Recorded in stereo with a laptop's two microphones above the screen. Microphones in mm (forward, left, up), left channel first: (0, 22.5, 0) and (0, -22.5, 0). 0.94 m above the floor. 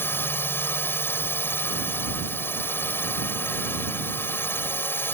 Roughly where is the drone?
Left.